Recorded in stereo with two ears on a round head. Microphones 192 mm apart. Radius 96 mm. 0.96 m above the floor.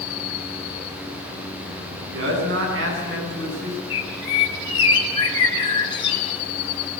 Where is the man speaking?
60° right (ahead or behind), 10 m.